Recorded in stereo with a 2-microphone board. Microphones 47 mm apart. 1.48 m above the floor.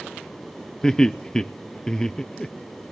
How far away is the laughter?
About 0.6 m.